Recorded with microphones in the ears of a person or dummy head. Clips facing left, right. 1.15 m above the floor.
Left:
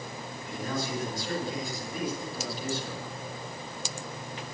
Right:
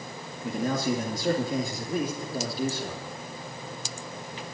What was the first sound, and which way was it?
A man speaking, 45° right (ahead or behind).